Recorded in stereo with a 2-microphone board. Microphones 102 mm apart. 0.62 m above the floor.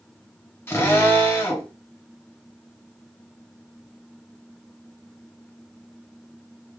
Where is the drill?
20° left (ahead or behind), 1.4 m.